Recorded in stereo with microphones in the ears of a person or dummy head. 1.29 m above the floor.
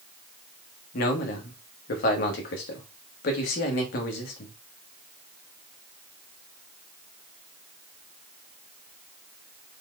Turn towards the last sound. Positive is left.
turn(degrees=60)  # may be behind; listen again after turning